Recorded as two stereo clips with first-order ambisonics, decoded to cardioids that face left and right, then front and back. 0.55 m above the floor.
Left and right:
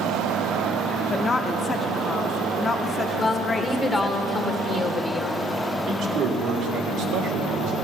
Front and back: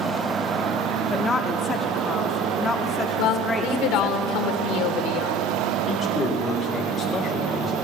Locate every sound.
1.1 s a woman speaking: 40° left, 0.8 m
3.2 s a woman speaking: 15° left, 1.7 m
5.9 s a man speaking: 75° right, 2.0 m